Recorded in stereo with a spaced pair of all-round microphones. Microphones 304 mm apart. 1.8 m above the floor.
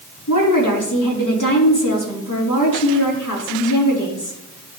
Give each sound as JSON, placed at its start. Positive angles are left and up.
{"t": 0.3, "sound": "a woman speaking", "side_deg": 75, "distance_m": 3.5}